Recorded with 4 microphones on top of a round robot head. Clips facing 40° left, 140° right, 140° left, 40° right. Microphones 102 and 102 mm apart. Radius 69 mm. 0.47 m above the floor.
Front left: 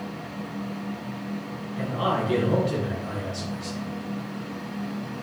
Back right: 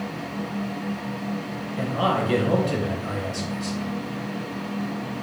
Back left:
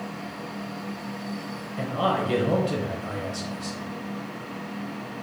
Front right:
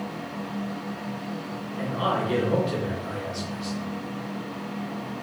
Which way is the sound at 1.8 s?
Straight behind.